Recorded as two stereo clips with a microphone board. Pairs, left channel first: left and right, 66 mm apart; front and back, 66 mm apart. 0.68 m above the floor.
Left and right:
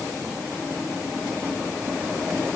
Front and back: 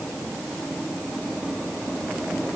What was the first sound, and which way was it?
Only background noise.